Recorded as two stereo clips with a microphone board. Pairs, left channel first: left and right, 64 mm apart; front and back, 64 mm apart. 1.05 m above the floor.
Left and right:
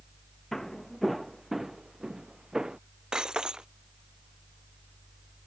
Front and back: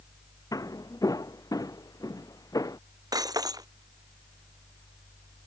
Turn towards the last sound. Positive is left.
turn(degrees=-170)